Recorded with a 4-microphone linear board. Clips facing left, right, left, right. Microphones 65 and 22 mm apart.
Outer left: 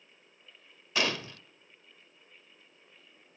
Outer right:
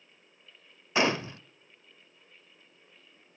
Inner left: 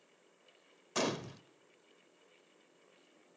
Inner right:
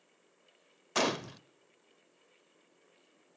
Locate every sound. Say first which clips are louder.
0.9 s a gunshot: outer right 5 dB, inner right 4 dB; 25° right (ahead or behind), 0.6 m